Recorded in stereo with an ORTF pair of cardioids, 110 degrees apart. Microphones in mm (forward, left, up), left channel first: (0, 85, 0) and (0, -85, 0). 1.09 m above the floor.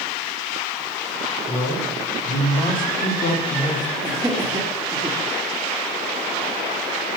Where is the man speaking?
65° left, 3 m; by 3.9 s 25° left, 1.4 m.